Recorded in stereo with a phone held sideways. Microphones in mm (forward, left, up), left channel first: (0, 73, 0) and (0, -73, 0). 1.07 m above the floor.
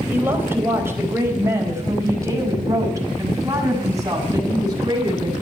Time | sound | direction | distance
0.1 | a woman speaking | 15° right (ahead or behind) | 4.5 m